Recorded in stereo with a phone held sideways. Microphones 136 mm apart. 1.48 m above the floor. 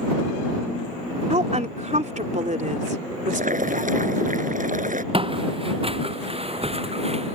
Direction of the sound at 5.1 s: 40° right (ahead or behind).